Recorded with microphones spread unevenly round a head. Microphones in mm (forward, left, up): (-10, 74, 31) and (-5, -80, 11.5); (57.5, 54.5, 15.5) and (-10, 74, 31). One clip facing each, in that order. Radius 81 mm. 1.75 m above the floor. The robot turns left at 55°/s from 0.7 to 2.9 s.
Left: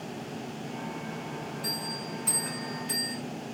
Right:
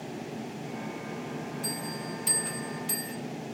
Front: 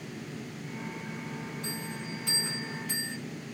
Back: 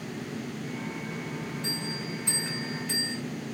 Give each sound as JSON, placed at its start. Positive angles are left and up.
{"t": 1.6, "sound": "a bell", "azimuth_deg": -45, "distance_m": 1.3}